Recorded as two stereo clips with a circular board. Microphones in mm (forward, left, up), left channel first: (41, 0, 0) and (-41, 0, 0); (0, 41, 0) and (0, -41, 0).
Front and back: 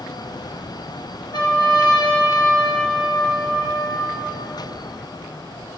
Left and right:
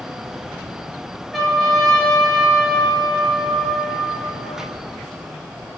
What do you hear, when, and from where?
1.3 s a trumpet: straight ahead, 3 m